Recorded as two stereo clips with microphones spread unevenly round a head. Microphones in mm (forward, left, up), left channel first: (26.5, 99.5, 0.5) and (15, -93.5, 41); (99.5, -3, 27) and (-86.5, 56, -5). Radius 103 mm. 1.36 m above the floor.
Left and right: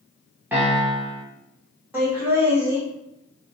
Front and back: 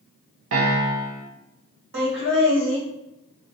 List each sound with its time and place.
0.5 s a piano: 175° right, 0.8 m
1.9 s laughter: straight behind, 1.8 m